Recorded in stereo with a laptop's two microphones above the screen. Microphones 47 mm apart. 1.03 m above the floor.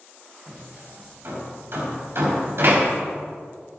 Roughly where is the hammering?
Right.